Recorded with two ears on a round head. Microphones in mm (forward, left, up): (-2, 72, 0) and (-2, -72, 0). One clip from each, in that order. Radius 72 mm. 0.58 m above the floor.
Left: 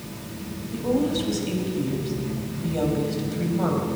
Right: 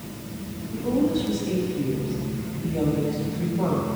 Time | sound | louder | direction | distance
0.7 | a woman speaking | even | 45° left (ahead or behind) | 3.5 m